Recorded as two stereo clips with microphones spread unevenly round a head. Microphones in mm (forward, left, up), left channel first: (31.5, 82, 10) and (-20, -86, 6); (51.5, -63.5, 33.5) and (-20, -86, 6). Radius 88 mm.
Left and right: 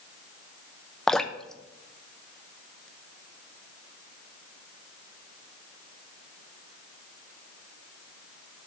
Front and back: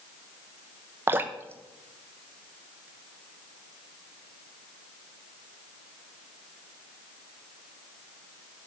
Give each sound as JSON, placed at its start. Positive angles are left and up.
{"t": 1.1, "sound": "dripping", "azimuth_deg": 160, "distance_m": 0.6}